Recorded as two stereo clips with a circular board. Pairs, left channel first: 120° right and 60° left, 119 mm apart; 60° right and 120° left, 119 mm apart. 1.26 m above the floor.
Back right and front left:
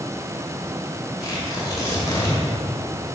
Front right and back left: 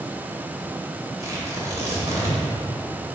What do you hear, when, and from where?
1.2 s tearing paper: straight behind, 2.5 m